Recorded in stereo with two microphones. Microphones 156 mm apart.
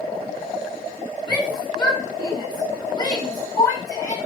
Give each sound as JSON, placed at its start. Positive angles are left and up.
{"t": 1.3, "sound": "a shout", "side_deg": 25, "distance_m": 6.0}